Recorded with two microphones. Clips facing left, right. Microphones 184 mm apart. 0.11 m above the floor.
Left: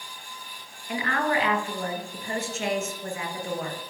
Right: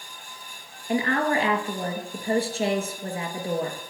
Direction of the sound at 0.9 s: 35° right (ahead or behind).